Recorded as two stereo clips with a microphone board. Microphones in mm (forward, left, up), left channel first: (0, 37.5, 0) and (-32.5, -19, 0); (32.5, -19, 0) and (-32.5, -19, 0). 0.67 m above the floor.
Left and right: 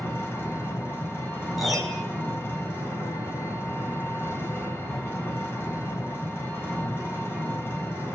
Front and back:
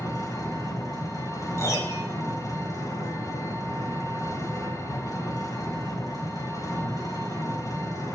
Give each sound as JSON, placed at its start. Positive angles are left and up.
{"t": 0.0, "sound": "an engine running", "azimuth_deg": 15, "distance_m": 3.5}
{"t": 1.6, "sound": "a piano", "azimuth_deg": -35, "distance_m": 2.0}